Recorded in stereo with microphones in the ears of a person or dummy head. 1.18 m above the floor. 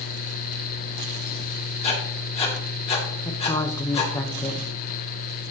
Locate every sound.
1.8 s writing: 35° left (ahead or behind), 2.5 m
3.2 s a woman speaking: 15° left (ahead or behind), 0.9 m